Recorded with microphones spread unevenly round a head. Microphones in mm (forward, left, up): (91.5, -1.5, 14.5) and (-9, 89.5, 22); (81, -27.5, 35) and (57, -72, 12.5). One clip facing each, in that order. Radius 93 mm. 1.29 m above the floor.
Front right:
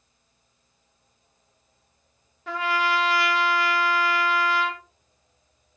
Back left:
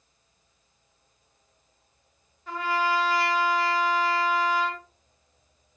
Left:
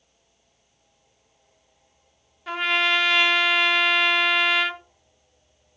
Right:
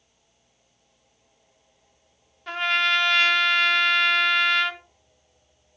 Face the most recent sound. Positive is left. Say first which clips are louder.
# front right 1 dB, even
turn(degrees=-25)